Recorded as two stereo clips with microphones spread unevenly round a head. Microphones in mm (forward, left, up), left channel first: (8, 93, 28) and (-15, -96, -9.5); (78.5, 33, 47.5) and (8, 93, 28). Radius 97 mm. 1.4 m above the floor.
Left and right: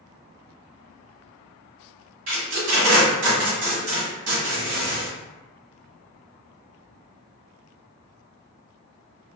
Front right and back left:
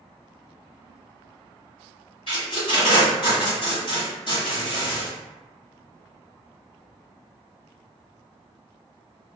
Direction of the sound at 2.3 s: 90° right.